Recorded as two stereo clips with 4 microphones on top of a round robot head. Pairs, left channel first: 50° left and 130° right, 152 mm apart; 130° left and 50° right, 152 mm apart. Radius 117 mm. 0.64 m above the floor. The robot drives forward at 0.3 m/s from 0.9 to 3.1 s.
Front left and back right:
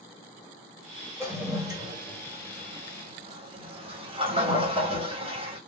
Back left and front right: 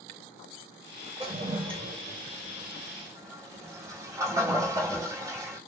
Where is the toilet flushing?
70° right, 1.4 m; by 5.6 s 105° right, 1.3 m.